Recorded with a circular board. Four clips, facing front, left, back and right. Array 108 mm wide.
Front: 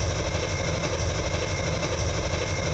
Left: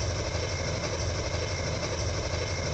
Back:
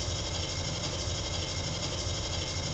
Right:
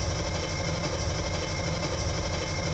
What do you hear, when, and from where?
0.0 s an engine running: 5° left, 1.7 m